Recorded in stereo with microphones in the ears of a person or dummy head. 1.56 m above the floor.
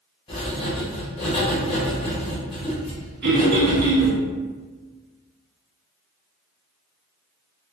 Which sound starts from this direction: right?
Throat clearing, at 3.2 s.